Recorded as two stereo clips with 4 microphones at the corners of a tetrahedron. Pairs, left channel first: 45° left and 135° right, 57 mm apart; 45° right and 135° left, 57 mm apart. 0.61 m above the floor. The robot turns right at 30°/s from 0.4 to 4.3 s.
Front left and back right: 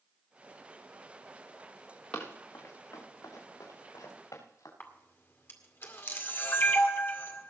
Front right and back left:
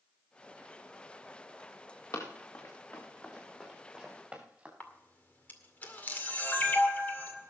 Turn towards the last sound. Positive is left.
turn(degrees=5)